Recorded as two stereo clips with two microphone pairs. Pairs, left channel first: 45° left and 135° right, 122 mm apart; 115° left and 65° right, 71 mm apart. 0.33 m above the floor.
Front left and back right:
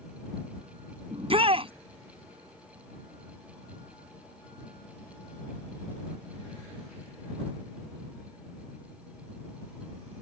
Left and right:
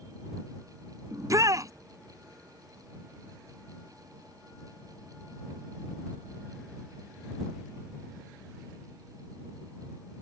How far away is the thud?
I don't hear a thud.